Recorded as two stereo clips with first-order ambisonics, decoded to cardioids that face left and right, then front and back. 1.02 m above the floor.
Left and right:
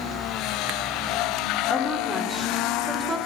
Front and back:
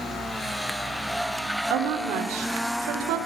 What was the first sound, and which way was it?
A woman speaking, straight behind.